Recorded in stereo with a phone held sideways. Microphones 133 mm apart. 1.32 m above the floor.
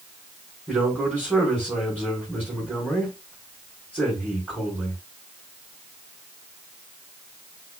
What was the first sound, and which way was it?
A man speaking, 10° right (ahead or behind).